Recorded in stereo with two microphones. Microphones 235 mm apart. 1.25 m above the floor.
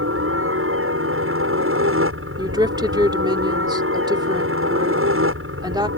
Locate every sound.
0.0 s a helicopter: 65° right (ahead or behind)
2.4 s a woman speaking: 20° right (ahead or behind)